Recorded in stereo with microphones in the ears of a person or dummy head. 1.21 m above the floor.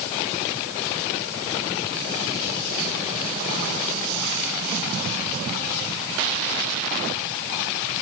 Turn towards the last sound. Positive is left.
No sound to turn to.